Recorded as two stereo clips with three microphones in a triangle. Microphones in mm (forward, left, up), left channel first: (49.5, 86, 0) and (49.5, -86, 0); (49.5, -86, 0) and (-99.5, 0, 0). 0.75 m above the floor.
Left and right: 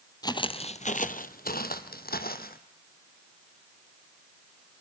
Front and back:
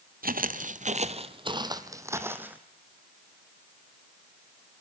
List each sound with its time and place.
0.2 s footsteps: 150° left, 1.4 m; by 2.6 s 70° left, 2.5 m